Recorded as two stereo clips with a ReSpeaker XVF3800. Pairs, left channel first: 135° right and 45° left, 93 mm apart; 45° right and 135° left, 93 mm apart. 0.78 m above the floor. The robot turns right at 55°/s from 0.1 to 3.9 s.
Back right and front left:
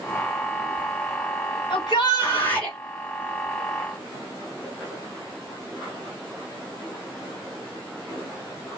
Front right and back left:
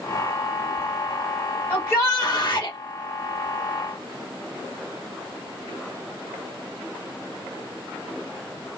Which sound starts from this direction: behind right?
A shout, at 1.7 s.